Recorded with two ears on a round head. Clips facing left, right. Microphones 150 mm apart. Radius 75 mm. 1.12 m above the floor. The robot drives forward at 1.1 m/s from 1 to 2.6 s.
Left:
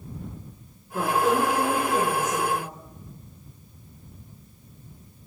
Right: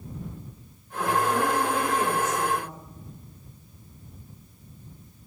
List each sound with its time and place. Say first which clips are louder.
0.9 s a woman speaking: left 2 dB; 80° left, 3.5 m; by 2.8 s 60° left (ahead or behind), 4 m